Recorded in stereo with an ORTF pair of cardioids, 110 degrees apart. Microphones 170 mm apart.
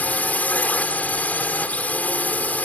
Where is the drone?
10° left.